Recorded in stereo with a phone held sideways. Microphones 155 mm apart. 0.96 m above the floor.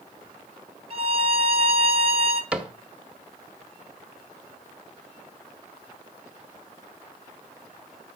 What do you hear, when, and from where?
0.9 s a violin: 40° right (ahead or behind), 1.0 m
2.5 s a cupboard door: 5° right (ahead or behind), 0.9 m